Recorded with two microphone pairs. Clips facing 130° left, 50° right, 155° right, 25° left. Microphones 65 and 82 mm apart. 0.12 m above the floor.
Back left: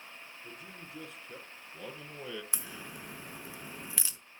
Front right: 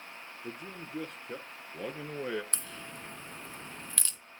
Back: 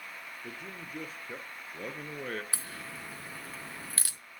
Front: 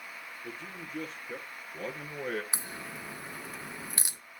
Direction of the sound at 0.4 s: 75° right.